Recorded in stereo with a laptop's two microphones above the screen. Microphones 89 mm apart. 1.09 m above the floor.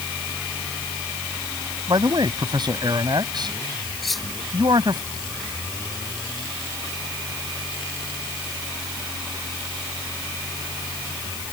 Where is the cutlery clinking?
Centre (ahead or behind).